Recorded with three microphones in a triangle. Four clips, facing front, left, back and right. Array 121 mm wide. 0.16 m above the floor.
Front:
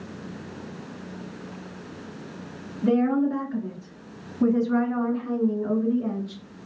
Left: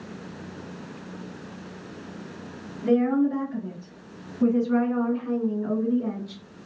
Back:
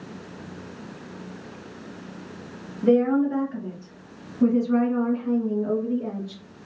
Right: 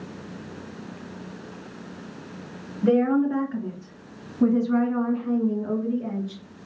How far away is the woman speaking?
About 2.5 m.